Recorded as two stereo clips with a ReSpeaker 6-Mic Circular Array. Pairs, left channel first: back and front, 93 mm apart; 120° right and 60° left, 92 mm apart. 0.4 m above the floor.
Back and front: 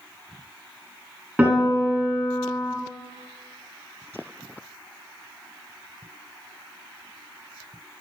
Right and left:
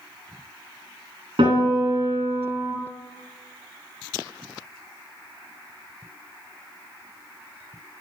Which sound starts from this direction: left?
A piano, at 1.4 s.